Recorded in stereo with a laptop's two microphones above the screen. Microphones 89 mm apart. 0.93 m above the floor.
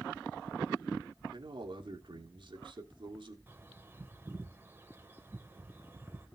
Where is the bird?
25° right (ahead or behind), 2.5 m.